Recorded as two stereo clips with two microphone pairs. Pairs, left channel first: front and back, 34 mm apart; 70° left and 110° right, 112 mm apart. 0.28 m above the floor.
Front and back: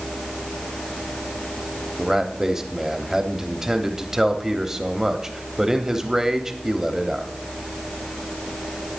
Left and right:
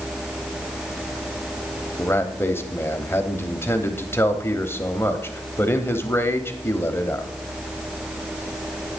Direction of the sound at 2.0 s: 120° left.